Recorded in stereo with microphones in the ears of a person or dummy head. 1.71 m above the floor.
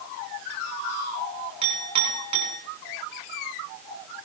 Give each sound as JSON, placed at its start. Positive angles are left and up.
{"t": 1.6, "sound": "a clink", "side_deg": -35, "distance_m": 4.5}